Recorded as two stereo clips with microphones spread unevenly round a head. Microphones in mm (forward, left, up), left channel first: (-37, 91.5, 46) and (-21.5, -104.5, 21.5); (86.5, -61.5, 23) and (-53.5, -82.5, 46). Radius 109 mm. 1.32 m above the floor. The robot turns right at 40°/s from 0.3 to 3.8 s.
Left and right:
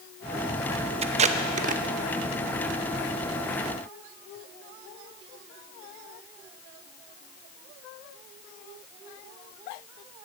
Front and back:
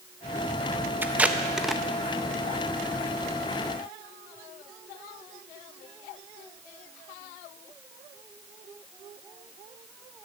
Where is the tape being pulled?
130° right, 0.6 m; by 1.8 s 95° right, 0.6 m.